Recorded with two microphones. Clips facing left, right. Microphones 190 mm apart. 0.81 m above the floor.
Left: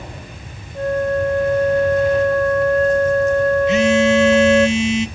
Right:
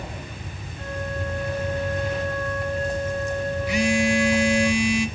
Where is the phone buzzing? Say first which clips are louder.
Left 4 dB; 25° left (ahead or behind), 0.6 m.